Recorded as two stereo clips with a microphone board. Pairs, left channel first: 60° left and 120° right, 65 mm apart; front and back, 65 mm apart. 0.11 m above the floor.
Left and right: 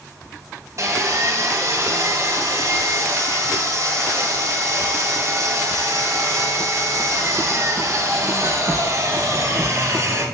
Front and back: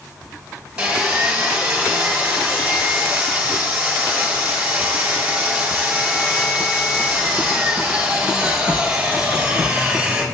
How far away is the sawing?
About 2.5 m.